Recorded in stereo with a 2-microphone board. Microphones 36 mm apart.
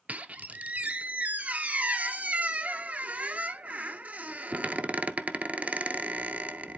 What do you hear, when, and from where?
0.1 s a squeak: 40° right (ahead or behind), 0.5 m